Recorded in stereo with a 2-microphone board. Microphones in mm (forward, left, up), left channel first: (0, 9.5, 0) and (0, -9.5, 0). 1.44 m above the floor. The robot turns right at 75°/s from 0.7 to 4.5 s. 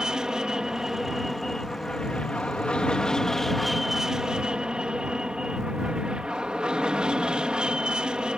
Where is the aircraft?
45° right; by 8.4 s 120° right.